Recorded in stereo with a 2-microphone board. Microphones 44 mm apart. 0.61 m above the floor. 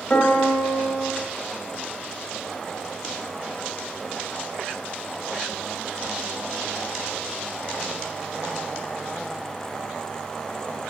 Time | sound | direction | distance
0.1 | a piano | 35° left (ahead or behind) | 2.5 m